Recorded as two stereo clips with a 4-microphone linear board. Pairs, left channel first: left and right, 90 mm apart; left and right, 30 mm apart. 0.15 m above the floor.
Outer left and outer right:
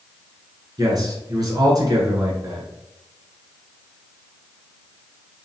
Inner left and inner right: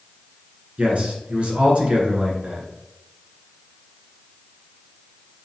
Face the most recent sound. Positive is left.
turn(degrees=-45)  # may be behind; listen again after turning